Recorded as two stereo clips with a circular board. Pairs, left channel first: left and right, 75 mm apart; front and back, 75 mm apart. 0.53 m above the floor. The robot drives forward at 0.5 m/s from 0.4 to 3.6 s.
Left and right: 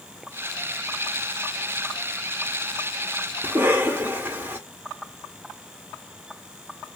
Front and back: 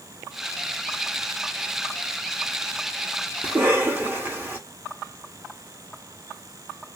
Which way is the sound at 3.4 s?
135° right.